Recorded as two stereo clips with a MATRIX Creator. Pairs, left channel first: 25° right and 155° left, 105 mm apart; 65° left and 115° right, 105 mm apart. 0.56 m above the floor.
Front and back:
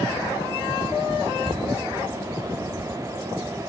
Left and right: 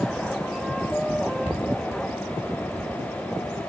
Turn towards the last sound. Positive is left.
turn(degrees=70)